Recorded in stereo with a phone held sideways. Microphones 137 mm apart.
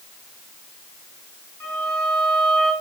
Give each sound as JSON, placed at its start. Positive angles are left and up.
{"t": 1.6, "sound": "a violin", "side_deg": 15, "distance_m": 9.5}